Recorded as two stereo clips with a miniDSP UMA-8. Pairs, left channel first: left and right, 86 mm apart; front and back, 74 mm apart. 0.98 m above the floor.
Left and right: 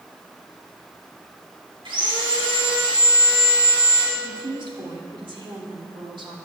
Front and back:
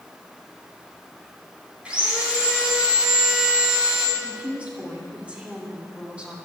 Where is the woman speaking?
105° right, 2.5 m.